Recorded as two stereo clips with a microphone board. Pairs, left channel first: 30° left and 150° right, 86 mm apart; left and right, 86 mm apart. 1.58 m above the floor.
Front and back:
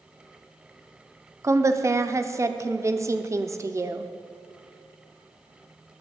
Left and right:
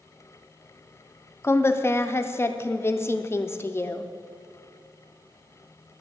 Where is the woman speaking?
155° left, 0.6 m.